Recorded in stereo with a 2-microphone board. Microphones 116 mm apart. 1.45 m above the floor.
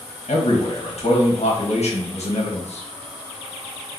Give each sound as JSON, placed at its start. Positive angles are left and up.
{"t": 0.3, "sound": "a man speaking", "side_deg": 70, "distance_m": 1.2}